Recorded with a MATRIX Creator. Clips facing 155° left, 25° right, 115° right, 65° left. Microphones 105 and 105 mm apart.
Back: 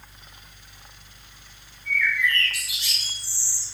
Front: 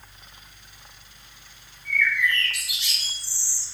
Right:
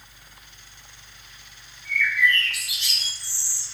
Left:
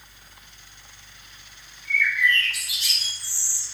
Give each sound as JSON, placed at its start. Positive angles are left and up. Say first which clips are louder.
{"t": 1.9, "sound": "a bird", "louder": "even, right 1 dB", "azimuth_deg": 110, "distance_m": 1.1}